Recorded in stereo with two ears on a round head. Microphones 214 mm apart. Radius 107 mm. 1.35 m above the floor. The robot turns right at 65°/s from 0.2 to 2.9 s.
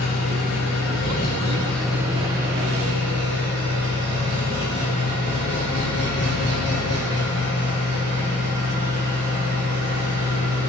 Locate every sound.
0.0 s an engine running: 70° left, 4 m; by 10.7 s 110° right, 4 m